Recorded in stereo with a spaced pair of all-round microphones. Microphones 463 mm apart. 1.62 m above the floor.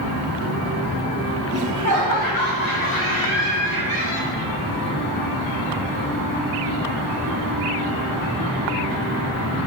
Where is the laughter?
30° right (ahead or behind), 0.7 m; by 4.4 s 45° right (ahead or behind), 4.5 m.